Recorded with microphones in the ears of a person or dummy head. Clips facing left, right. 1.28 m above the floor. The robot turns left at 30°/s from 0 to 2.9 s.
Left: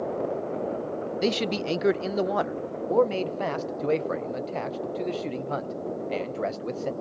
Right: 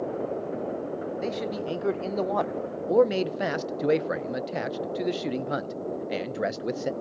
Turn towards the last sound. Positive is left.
turn(degrees=-10)